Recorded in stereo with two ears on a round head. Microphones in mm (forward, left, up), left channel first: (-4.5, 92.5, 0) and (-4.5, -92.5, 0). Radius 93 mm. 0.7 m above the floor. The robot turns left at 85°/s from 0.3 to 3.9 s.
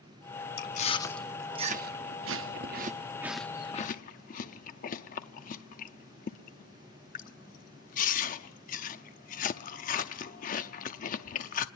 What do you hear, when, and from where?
0.6 s chewing: 50° left (ahead or behind), 0.7 m; by 11.7 s 40° left (ahead or behind), 0.7 m